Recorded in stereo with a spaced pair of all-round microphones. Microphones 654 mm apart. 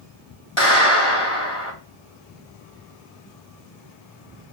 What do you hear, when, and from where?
0.6 s a clap: 50° left (ahead or behind), 2 m